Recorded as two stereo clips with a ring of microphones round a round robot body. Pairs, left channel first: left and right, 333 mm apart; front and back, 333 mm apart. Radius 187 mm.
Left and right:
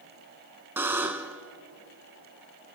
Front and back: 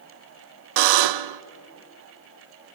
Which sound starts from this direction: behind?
A buzzer, at 0.8 s.